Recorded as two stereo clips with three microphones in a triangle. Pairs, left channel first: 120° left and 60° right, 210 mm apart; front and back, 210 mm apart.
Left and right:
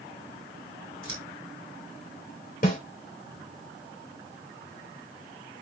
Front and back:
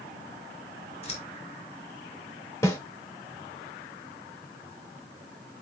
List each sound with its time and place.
1.0 s scissors: 60° right, 4 m
2.6 s a snare drum: 75° left, 2.5 m